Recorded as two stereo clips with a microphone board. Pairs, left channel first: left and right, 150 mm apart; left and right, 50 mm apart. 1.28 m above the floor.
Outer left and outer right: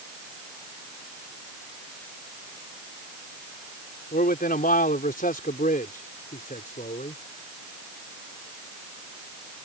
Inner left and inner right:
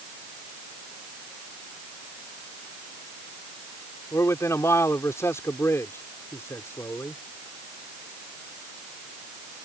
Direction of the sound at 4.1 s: 80° left.